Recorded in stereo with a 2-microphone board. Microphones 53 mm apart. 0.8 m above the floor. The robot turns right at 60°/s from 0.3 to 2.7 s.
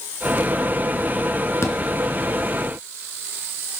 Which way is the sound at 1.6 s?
65° left (ahead or behind).